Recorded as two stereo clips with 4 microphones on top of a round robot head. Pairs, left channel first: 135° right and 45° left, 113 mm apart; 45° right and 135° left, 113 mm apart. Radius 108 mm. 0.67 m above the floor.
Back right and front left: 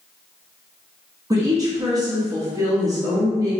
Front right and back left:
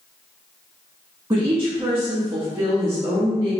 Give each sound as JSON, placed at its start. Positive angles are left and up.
{"t": 1.3, "sound": "a woman speaking", "azimuth_deg": 85, "distance_m": 1.3}